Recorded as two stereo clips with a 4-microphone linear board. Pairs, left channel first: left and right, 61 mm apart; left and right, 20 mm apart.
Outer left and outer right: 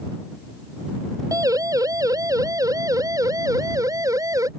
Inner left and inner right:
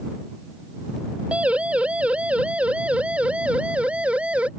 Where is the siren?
70° right (ahead or behind); by 4.5 s 65° right (ahead or behind).